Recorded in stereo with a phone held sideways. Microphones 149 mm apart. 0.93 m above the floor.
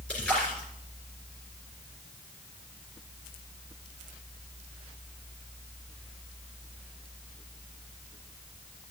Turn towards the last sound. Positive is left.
turn(degrees=5)  # may be behind; listen again after turning